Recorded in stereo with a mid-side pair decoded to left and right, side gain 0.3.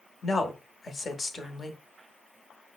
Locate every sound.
0.2 s a woman speaking: 45° left, 0.9 m